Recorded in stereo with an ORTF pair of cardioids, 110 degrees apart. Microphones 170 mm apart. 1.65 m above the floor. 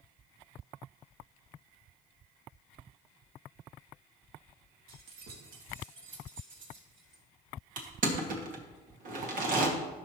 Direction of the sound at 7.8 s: 55° right.